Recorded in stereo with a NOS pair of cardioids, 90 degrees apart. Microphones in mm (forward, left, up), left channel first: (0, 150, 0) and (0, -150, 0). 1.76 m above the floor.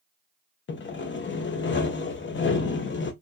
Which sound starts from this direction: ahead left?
Sawing, at 0.7 s.